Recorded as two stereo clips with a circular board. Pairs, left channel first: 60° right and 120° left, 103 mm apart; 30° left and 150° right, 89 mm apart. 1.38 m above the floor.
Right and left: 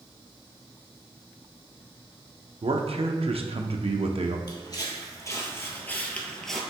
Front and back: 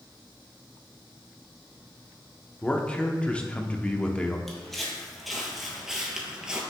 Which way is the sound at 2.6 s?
105° left.